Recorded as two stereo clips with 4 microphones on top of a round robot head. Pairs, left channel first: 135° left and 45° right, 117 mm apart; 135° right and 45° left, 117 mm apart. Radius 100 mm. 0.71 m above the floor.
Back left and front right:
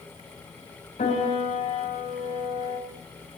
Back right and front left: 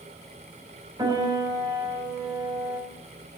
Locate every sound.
1.0 s a piano: 100° left, 4 m